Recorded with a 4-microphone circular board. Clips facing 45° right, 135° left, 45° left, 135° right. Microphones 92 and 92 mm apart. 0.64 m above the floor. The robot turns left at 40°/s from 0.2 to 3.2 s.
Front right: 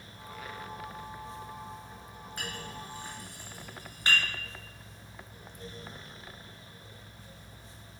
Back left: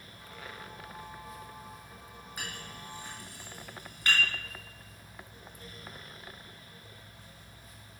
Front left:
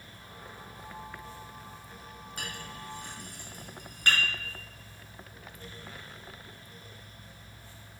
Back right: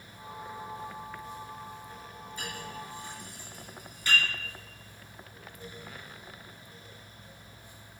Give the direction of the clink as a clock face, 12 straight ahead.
10 o'clock.